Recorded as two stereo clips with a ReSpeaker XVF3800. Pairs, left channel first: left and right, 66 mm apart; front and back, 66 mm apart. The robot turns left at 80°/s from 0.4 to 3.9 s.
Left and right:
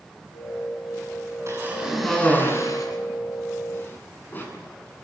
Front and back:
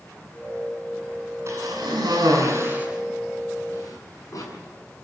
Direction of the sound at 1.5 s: 135° right.